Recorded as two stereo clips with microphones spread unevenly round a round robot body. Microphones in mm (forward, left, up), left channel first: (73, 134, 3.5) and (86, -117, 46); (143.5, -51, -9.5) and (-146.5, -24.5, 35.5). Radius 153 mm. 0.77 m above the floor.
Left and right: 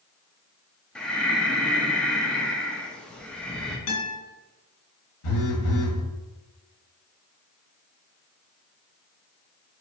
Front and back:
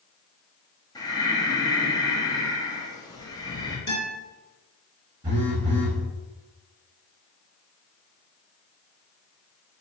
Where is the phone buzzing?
100° left, 1.2 m.